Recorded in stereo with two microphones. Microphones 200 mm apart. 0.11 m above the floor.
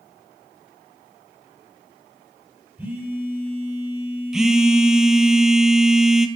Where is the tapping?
I don't hear tapping.